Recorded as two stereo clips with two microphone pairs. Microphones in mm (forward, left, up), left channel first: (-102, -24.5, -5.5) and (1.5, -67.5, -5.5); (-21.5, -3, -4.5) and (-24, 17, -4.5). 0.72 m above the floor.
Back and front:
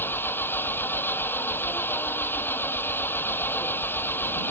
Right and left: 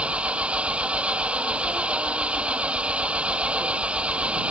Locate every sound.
0.0 s an engine running: 85° left